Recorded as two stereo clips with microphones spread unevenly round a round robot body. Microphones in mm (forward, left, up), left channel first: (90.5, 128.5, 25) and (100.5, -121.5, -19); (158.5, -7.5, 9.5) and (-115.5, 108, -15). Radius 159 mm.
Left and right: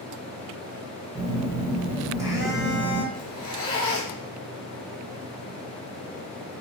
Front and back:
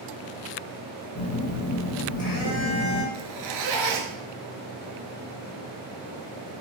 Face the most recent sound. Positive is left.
turn(degrees=160)